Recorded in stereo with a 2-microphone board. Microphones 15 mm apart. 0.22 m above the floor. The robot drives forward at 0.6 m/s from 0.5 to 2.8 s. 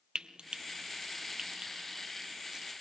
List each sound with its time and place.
0.1 s frying: 85° right, 0.8 m; by 2.7 s 30° right (ahead or behind), 1.5 m